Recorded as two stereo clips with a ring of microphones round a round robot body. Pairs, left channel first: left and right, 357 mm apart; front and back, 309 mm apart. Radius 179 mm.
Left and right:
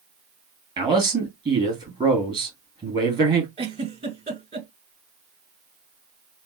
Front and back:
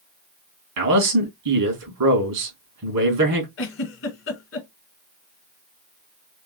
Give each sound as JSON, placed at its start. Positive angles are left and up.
{"t": 0.8, "sound": "a man speaking", "azimuth_deg": -165, "distance_m": 3.0}
{"t": 3.6, "sound": "a giggle", "azimuth_deg": -25, "distance_m": 1.6}